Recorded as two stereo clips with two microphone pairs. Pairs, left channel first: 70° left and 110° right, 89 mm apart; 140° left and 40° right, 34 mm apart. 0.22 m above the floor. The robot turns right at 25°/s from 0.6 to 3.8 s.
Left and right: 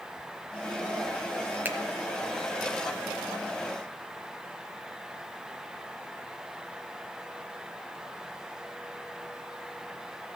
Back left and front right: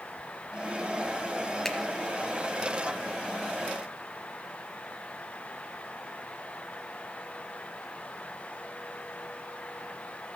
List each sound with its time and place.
1.6 s a finger snap: 150° right, 0.9 m